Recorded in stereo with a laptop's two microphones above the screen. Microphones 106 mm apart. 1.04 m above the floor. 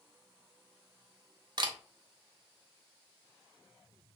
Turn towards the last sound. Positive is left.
turn(degrees=-45)  # may be behind; listen again after turning